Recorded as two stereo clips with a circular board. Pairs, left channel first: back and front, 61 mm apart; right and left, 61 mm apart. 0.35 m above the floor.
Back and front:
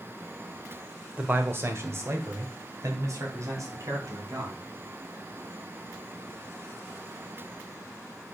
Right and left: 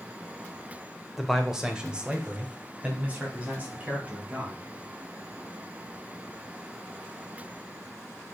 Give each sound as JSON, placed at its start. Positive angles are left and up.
{"t": 1.2, "sound": "a man speaking", "azimuth_deg": 5, "distance_m": 1.5}